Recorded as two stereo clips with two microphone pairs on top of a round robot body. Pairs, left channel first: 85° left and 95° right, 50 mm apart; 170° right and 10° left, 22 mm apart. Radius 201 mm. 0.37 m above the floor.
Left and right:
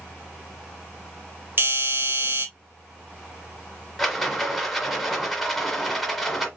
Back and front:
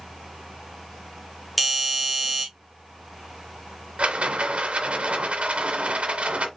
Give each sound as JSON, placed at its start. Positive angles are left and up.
{"t": 1.6, "sound": "a doorbell", "azimuth_deg": -70, "distance_m": 2.5}
{"t": 4.0, "sound": "a rattle", "azimuth_deg": 0, "distance_m": 1.5}